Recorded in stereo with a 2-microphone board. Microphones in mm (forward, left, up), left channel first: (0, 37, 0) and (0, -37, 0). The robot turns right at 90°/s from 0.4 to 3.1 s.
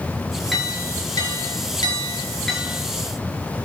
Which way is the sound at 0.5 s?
5° right.